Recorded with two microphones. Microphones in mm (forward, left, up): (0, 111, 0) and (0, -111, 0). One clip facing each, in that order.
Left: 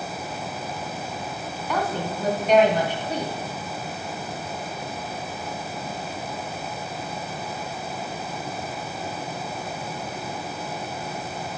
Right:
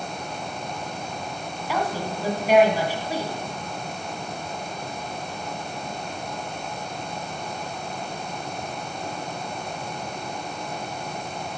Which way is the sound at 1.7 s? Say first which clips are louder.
Even; 5° right (ahead or behind).